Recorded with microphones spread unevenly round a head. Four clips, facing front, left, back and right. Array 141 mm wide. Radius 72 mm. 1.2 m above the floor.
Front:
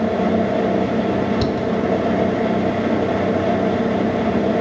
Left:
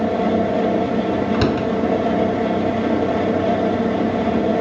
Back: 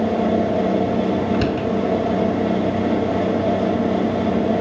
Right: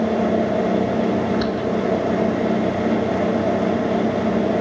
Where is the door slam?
100° left.